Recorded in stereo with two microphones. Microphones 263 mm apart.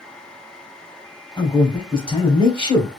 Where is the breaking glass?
I don't hear breaking glass.